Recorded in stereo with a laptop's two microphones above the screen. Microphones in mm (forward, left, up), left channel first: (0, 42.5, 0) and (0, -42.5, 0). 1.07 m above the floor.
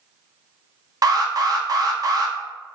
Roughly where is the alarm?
Right.